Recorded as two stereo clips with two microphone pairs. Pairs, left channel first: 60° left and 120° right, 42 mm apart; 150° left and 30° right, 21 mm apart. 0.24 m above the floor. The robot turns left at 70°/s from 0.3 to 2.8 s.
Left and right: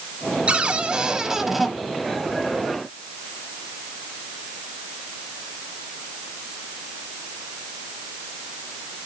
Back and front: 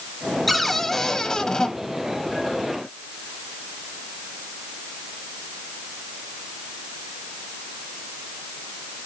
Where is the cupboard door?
120° right, 0.9 m; by 1.7 s 150° left, 0.9 m.